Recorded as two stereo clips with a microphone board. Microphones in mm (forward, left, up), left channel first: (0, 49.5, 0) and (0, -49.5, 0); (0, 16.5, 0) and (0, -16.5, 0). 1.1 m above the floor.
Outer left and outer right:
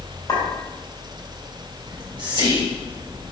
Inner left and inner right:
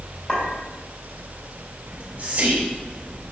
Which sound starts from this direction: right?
Whispering, at 1.9 s.